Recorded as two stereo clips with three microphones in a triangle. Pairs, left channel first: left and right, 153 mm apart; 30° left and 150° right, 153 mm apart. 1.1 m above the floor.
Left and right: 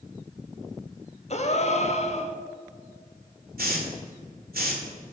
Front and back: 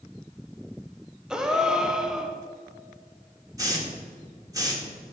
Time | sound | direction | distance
1.3 | a gasp | 125° left | 0.8 m
3.6 | a hiss | 85° right | 1.7 m